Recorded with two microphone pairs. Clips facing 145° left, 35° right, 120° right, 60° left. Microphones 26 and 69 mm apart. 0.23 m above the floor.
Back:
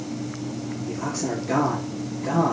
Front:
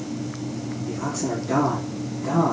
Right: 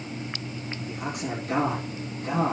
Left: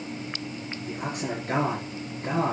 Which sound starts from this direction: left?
A man speaking, at 0.9 s.